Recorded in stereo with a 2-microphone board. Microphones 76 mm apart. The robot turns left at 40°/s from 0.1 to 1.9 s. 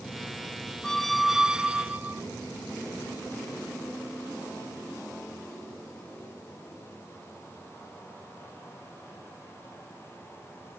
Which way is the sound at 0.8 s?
10° left.